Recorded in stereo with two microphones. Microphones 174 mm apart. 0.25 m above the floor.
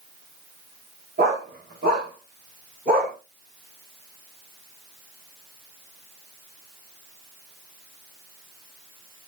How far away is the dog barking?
About 9 m.